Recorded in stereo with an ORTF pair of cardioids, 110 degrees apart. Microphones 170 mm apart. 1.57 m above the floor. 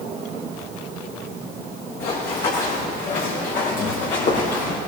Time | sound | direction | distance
2.0 | running footsteps | 65° left | 5.5 m